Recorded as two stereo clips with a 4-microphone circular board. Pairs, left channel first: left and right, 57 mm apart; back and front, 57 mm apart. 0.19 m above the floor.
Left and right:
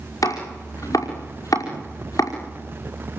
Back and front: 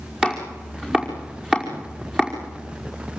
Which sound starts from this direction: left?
Chopping, at 0.2 s.